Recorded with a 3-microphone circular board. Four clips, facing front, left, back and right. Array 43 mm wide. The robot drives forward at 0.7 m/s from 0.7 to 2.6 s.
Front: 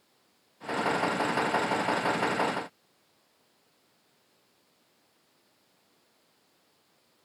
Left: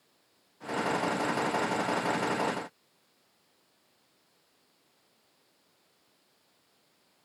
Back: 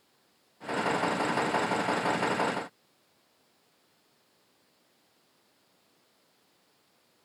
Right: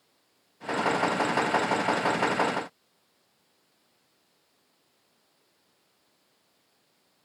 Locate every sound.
Only background noise.